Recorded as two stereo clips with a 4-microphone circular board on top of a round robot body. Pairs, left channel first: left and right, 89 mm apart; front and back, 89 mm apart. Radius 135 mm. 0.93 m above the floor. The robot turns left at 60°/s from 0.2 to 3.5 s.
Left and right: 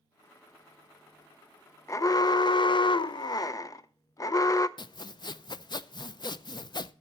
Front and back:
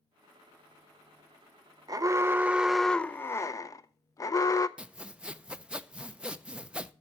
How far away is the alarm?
About 0.6 m.